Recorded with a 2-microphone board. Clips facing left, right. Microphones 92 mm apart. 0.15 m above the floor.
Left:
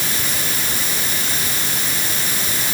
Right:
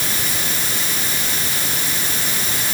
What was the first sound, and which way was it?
Only background noise.